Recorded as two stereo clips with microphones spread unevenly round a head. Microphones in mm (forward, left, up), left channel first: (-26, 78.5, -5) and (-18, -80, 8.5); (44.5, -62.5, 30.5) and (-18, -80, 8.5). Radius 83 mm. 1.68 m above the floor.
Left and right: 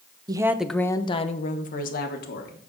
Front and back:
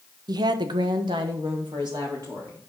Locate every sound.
0.3 s a woman speaking: 145° right, 0.8 m; by 2.6 s 115° left, 1.9 m